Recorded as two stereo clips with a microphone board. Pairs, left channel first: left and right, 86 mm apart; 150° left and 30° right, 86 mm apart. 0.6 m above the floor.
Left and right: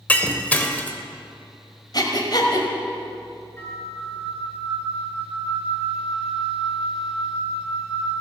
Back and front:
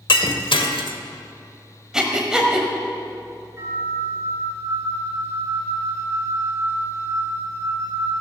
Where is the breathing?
50° left, 1.5 m.